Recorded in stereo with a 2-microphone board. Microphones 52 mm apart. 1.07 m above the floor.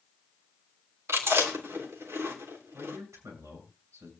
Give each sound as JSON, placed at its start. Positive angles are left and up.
{"t": 1.1, "sound": "chewing", "side_deg": -60, "distance_m": 3.5}
{"t": 2.7, "sound": "a man speaking", "side_deg": -85, "distance_m": 7.0}